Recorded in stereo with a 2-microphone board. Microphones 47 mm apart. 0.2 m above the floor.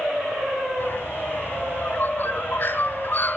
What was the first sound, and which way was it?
A bird, 40° left (ahead or behind).